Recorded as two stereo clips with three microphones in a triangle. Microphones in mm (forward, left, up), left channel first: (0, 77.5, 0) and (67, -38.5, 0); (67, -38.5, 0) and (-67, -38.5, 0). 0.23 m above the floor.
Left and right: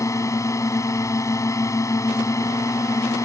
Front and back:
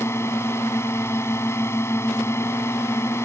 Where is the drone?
60° left.